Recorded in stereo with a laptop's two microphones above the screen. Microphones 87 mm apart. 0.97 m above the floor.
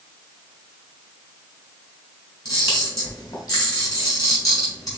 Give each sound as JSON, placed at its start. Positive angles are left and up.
{"t": 2.5, "sound": "a camera shutter", "side_deg": 45, "distance_m": 2.5}